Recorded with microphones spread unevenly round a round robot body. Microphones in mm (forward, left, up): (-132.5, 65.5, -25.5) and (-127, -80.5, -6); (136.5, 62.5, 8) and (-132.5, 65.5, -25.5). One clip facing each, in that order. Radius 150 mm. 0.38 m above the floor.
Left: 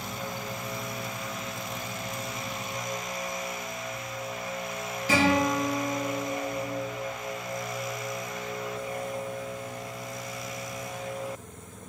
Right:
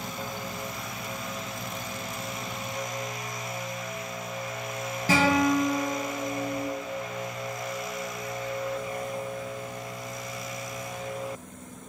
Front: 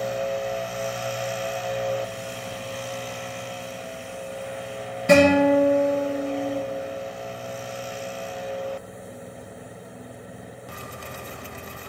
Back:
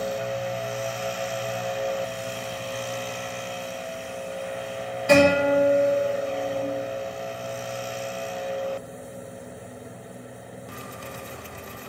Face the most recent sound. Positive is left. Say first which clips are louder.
# right 1 dB, front 2 dB
turn(degrees=-60)